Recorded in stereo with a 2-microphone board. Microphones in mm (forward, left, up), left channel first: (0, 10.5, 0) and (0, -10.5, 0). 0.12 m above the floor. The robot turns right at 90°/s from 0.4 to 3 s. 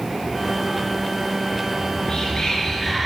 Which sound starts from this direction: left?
Whispering, at 1.7 s.